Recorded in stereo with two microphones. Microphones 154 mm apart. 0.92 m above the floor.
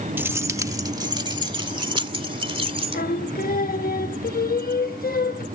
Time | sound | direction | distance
0.2 | keys jangling | 15° right (ahead or behind) | ?
2.9 | singing | 75° left (ahead or behind) | ?